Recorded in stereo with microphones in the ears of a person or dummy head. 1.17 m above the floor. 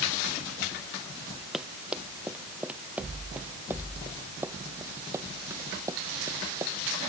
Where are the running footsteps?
5° right (ahead or behind); by 7.0 s 20° right (ahead or behind).